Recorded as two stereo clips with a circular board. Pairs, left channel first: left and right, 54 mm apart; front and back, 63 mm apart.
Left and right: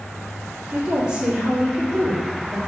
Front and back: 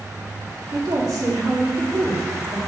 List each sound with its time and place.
0.7 s a woman speaking: 165° right, 2.5 m